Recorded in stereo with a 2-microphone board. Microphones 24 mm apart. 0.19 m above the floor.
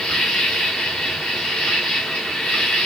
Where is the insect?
65° left (ahead or behind), 3 m.